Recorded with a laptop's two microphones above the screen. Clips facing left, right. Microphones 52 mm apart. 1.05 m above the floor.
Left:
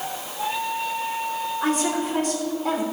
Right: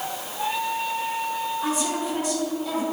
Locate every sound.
1.6 s a woman speaking: 55° left (ahead or behind), 3.5 m